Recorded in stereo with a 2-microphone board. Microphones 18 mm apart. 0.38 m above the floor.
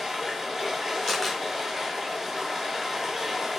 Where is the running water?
20° right (ahead or behind), 2.5 m.